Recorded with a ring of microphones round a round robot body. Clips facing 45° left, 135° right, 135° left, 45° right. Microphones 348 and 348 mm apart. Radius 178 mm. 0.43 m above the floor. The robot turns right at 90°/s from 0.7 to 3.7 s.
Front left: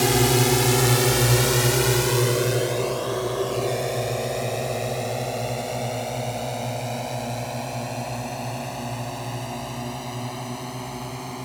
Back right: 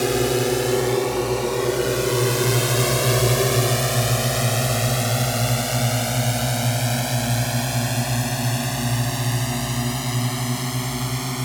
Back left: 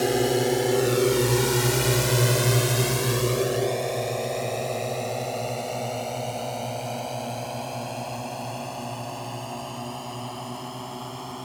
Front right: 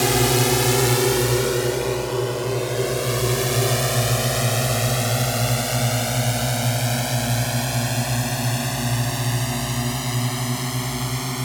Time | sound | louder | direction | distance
0.0 | a drone | back right 1 dB, front right 1 dB | 10° right | ?